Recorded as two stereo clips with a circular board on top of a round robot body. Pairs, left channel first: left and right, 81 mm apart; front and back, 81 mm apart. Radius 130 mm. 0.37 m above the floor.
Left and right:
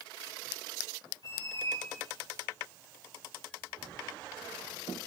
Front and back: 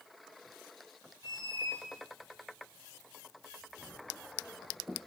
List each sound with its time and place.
1.2 s a squeak: 40° left, 0.6 m